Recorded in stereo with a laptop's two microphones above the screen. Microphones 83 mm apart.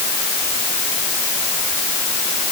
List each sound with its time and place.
Only background noise.